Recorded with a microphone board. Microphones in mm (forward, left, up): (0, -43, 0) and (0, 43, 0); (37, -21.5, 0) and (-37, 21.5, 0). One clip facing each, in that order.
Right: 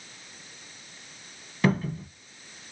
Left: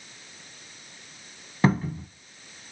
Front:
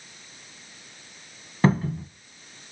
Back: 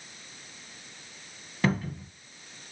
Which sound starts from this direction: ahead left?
A cupboard door, at 1.6 s.